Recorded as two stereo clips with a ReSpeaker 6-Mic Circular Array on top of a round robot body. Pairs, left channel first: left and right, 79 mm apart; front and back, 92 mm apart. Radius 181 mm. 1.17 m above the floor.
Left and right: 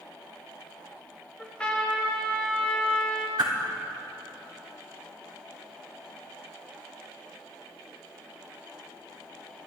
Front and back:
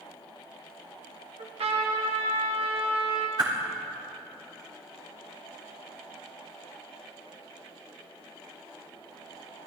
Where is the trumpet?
170° left, 1.8 m.